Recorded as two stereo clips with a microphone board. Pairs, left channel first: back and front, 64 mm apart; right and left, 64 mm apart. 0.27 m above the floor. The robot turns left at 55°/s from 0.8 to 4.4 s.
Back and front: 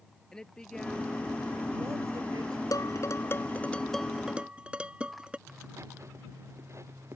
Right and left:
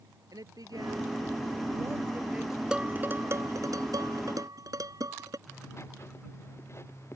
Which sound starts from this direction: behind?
Dishes clattering, at 2.7 s.